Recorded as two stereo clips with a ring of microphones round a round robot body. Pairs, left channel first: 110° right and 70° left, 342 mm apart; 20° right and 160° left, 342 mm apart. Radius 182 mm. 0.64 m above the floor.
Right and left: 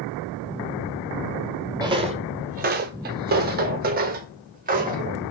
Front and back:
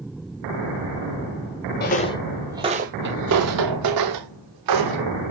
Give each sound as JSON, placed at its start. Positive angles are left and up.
{"t": 1.8, "sound": "footsteps", "azimuth_deg": 0, "distance_m": 0.7}